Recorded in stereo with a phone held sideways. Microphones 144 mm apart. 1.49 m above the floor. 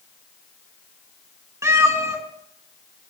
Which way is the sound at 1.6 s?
20° right (ahead or behind).